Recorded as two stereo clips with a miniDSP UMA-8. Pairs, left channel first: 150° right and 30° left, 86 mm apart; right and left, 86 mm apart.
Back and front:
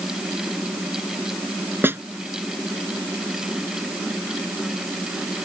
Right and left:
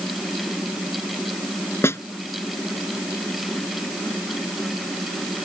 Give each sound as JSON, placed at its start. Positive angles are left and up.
{"t": 1.8, "sound": "a snare drum", "azimuth_deg": -30}